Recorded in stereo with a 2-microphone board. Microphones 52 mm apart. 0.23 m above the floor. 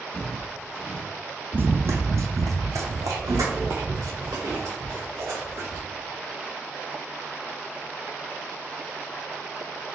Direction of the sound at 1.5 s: 40° right (ahead or behind).